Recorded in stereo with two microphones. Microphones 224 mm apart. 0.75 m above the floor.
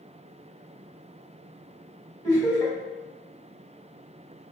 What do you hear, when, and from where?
2.2 s laughter: 15° left (ahead or behind), 1.7 m